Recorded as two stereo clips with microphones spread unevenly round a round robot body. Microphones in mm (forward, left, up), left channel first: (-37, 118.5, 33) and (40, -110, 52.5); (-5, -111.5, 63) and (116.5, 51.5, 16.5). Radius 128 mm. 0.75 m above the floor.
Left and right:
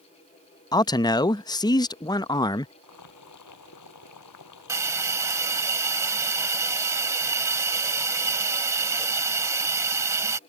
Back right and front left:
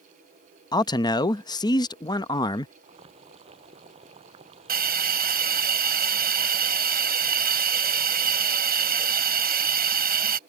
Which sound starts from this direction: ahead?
A hiss, at 4.7 s.